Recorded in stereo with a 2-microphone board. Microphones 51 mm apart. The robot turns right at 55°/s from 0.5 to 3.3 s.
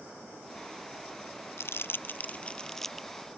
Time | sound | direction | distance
1.6 | crumpling | 65° left (ahead or behind) | ?